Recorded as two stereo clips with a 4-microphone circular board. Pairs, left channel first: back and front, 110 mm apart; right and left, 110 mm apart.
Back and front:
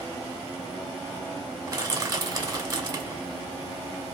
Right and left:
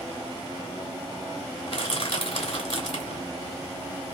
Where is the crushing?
55° right, 2 m.